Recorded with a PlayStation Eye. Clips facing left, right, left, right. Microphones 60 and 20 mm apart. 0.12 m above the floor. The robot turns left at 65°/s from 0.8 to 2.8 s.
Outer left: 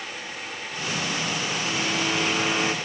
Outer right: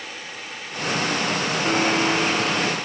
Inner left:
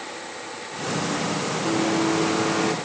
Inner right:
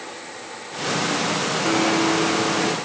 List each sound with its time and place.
1.6 s a blender: 130° right; by 2.7 s 160° left